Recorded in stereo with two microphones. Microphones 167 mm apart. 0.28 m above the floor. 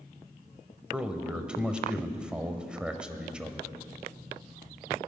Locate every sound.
0.9 s a man speaking: 5° right (ahead or behind), 0.9 m